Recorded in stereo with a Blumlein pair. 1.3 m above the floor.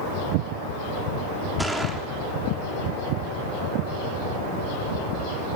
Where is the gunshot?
5° right, 3.5 m.